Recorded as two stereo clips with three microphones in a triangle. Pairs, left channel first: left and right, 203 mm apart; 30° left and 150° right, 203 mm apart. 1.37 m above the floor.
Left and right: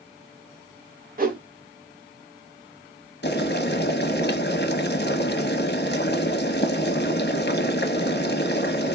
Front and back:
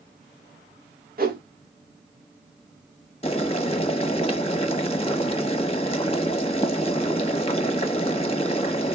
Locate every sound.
1.2 s a whoosh: 120° right, 1.3 m
3.2 s boiling: 80° left, 0.8 m